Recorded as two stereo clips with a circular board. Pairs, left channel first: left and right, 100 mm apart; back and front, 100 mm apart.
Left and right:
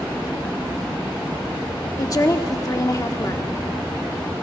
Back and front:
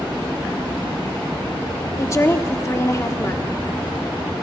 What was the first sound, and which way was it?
A woman speaking, 130° left.